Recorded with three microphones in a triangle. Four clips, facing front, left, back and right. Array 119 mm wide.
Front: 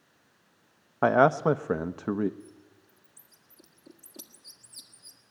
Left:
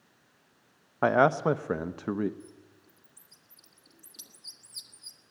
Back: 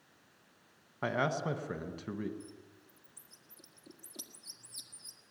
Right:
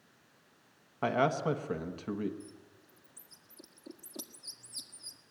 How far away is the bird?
About 1.4 m.